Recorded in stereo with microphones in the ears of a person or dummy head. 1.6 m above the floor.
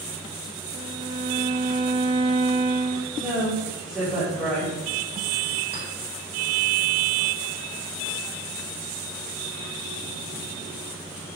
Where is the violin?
25° right (ahead or behind), 0.8 m.